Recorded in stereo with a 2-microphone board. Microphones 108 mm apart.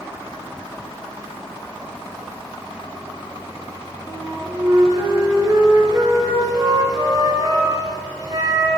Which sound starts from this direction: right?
A flute, at 4.1 s.